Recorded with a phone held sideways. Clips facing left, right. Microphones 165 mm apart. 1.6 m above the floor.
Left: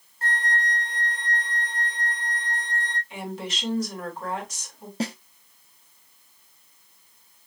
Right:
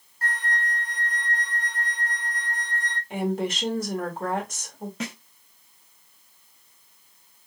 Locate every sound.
0.2 s a flute: 25° left (ahead or behind), 0.7 m
3.1 s a woman speaking: 50° right (ahead or behind), 1.8 m
5.0 s a snare drum: 35° left (ahead or behind), 0.6 m